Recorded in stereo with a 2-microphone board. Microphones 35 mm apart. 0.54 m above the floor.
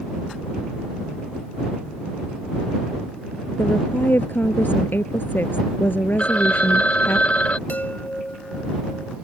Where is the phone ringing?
40° left (ahead or behind).